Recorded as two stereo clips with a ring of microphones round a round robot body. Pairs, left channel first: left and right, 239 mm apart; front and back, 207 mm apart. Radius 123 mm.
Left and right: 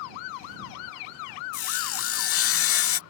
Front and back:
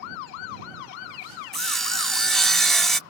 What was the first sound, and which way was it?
Sawing, 90° left.